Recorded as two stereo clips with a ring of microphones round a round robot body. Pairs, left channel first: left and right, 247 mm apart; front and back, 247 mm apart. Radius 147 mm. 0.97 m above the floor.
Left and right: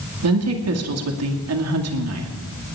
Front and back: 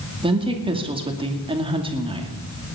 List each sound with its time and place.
0.2 s a woman speaking: 110° right, 2.5 m